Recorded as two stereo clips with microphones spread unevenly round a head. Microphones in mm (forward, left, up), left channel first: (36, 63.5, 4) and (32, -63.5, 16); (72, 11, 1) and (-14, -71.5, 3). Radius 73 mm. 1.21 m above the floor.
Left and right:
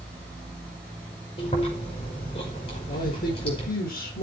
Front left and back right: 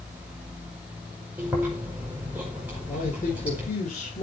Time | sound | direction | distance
1.4 | chewing | 145° left | 4.5 m
2.9 | a man speaking | 90° left | 5 m